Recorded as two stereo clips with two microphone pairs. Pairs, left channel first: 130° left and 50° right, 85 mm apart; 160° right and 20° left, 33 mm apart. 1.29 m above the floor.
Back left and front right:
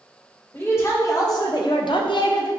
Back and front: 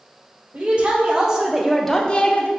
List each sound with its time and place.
0.5 s a woman speaking: 70° left, 1.1 m; by 2.5 s 165° left, 0.7 m